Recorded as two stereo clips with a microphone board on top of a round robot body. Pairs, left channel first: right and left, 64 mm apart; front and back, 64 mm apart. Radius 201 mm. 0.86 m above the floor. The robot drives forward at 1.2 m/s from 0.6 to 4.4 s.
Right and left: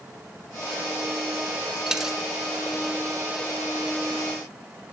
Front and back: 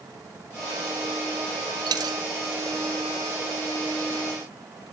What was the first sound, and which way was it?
A dropped coin, 175° left.